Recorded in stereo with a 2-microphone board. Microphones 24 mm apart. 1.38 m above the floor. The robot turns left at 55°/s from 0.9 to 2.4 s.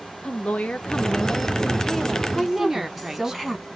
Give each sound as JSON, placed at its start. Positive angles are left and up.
{"t": 0.2, "sound": "a woman speaking", "azimuth_deg": 60, "distance_m": 0.6}
{"t": 2.4, "sound": "a woman speaking", "side_deg": -10, "distance_m": 1.5}